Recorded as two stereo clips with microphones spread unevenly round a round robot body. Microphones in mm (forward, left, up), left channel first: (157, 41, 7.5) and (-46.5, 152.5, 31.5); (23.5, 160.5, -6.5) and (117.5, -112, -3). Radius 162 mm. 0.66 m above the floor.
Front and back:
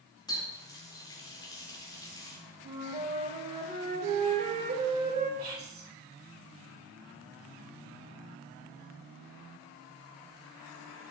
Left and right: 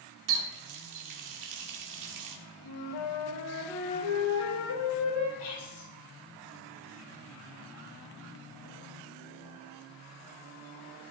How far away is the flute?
About 3.5 m.